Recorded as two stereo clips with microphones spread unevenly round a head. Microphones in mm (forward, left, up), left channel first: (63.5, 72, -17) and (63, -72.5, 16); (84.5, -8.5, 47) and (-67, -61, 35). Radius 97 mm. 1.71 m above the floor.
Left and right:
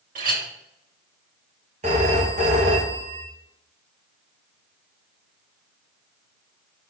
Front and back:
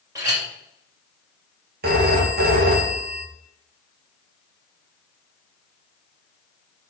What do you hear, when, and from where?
0.1 s a clink: 95° right, 2.5 m
1.8 s a phone ringing: 135° right, 1.6 m